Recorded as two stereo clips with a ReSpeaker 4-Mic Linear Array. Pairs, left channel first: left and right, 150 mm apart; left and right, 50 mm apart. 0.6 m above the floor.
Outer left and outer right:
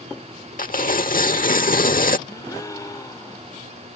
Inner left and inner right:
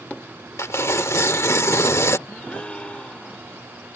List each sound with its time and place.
0.6 s tearing paper: 70° left (ahead or behind)
2.3 s a gasp: 25° left (ahead or behind)